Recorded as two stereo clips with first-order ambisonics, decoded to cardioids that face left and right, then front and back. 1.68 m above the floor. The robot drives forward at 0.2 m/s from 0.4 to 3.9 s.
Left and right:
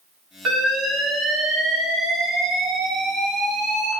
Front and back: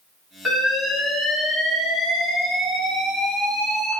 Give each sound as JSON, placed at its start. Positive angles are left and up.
{"t": 0.5, "sound": "an alarm", "azimuth_deg": -75, "distance_m": 0.8}